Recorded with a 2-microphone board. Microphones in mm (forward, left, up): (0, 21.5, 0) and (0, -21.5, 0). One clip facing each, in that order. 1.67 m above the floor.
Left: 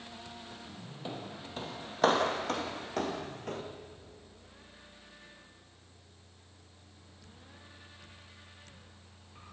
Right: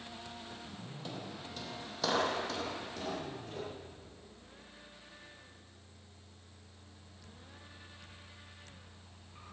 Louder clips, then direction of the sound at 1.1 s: Left 3 dB; 20° left (ahead or behind).